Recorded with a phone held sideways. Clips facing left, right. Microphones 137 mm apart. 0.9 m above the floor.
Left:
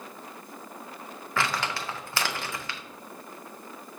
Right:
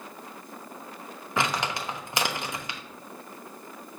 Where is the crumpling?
20° right (ahead or behind), 0.6 m.